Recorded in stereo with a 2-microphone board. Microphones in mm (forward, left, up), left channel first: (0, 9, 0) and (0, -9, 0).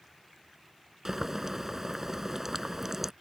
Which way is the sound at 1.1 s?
20° right (ahead or behind).